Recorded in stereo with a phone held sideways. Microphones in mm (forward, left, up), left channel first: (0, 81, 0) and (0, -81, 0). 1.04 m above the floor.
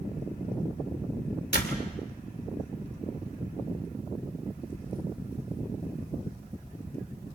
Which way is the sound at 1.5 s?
85° left.